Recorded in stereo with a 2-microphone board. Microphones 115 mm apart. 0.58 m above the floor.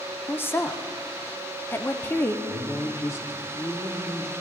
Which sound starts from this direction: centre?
A woman speaking, at 0.3 s.